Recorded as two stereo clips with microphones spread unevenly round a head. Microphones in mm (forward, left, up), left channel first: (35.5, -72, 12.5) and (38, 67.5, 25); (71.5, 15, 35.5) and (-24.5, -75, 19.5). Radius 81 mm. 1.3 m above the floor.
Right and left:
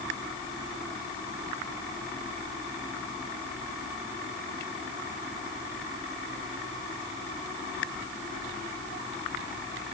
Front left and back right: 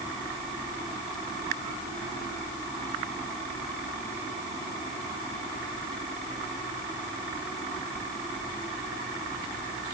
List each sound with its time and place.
Only background noise.